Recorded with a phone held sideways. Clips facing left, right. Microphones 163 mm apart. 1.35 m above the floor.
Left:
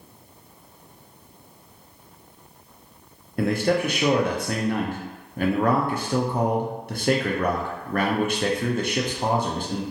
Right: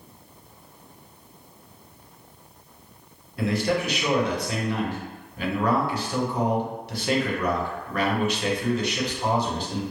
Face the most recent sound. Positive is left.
turn(degrees=50)  # may be behind; listen again after turning